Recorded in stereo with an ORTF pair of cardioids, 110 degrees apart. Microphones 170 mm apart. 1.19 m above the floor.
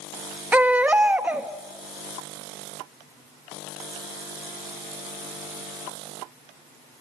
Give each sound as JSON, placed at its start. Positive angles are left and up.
{"t": 0.5, "sound": "a baby crying", "azimuth_deg": -10, "distance_m": 1.4}